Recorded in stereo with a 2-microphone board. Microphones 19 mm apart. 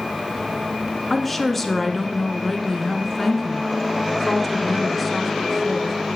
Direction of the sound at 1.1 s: 5° left (ahead or behind).